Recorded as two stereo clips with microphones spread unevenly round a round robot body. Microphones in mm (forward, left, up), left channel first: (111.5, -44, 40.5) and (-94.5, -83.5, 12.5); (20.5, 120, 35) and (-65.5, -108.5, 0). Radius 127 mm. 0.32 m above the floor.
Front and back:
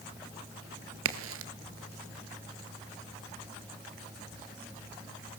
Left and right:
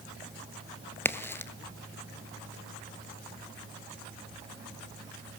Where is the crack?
150° left, 1.1 m.